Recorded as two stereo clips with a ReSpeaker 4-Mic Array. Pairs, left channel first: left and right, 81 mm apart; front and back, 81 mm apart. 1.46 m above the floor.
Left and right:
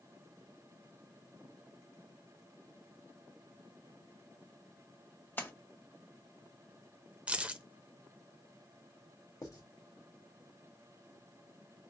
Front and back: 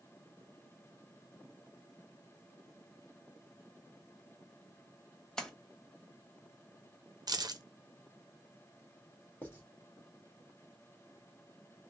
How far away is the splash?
About 0.8 m.